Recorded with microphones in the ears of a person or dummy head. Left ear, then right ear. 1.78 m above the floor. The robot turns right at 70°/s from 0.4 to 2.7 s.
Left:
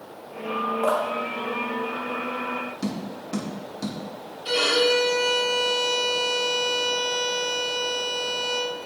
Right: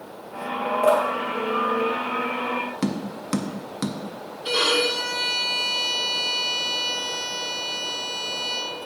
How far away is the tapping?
About 0.6 m.